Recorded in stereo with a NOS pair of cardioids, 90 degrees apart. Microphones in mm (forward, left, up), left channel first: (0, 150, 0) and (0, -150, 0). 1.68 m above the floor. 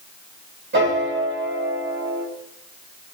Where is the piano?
35° right, 1.6 m.